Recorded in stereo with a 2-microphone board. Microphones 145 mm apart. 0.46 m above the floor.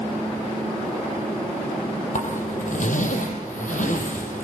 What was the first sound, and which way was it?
A zipper, 60° left (ahead or behind).